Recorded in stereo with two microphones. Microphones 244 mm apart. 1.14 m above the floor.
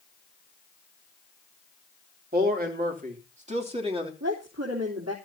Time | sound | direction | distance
2.3 | a man speaking | 40° right (ahead or behind) | 3 m
4.2 | a woman speaking | 80° right | 3.5 m